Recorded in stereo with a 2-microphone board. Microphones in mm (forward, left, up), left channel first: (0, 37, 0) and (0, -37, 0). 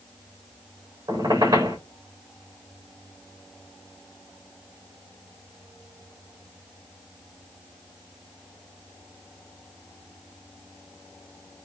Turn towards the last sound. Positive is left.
turn(degrees=-85)